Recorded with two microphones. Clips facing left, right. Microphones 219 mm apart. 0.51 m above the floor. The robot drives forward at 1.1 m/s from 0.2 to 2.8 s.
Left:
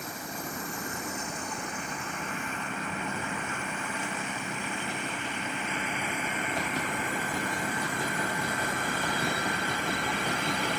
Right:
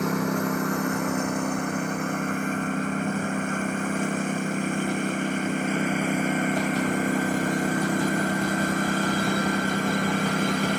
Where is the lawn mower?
75° right (ahead or behind); by 10.8 s 50° right (ahead or behind).